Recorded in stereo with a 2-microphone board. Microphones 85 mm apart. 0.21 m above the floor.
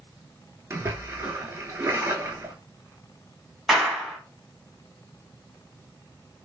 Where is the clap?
5° right (ahead or behind), 1.1 m.